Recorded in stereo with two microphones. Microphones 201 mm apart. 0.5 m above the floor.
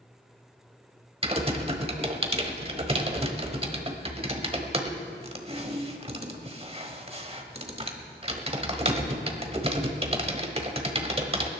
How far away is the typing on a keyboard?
About 1.2 m.